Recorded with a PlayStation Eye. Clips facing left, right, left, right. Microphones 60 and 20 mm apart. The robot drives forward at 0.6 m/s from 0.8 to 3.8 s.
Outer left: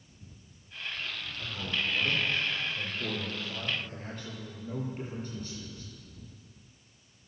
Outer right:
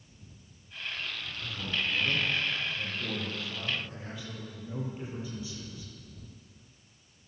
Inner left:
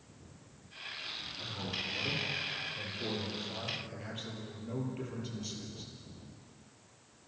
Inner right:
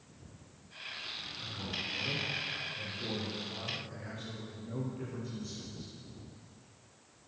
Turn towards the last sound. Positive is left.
turn(degrees=50)  # may be behind; listen again after turning